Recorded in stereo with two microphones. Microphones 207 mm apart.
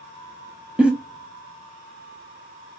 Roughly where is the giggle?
Centre.